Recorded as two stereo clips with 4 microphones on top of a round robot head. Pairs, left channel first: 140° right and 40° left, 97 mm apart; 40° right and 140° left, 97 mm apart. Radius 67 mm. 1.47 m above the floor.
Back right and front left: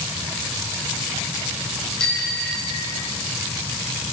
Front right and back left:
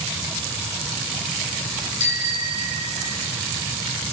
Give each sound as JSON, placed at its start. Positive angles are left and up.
{"t": 2.0, "sound": "a bicycle bell", "azimuth_deg": -55, "distance_m": 5.5}